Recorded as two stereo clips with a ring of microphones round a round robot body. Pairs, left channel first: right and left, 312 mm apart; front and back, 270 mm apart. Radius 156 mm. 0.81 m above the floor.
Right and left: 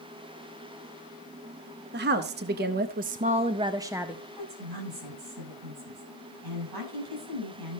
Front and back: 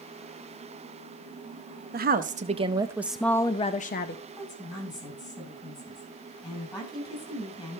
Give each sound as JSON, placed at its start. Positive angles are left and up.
{"t": 1.9, "sound": "a woman speaking", "azimuth_deg": 135, "distance_m": 1.0}
{"t": 4.4, "sound": "a woman speaking", "azimuth_deg": 75, "distance_m": 9.5}